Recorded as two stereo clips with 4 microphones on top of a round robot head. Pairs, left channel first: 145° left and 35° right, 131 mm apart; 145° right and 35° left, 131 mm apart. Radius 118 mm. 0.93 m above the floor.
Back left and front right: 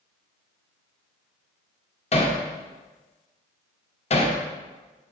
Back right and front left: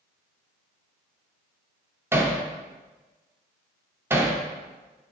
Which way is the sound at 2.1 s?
105° left.